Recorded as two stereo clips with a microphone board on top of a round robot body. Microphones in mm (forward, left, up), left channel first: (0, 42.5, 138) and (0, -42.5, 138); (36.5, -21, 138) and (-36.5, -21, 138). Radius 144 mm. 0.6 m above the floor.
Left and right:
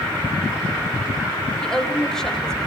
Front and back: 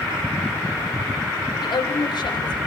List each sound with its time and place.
1.6 s a woman speaking: 5° left, 3 m